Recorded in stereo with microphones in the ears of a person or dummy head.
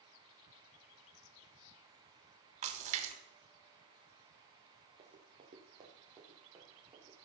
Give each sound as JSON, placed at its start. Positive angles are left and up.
{"t": 2.6, "sound": "a splash", "side_deg": -40, "distance_m": 2.0}
{"t": 5.0, "sound": "running footsteps", "side_deg": -20, "distance_m": 1.8}